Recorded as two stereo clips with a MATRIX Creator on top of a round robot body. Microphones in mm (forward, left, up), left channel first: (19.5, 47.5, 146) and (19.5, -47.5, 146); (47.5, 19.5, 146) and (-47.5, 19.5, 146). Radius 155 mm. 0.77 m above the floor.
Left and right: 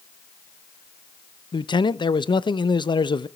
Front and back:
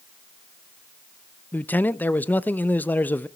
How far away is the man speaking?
About 0.8 m.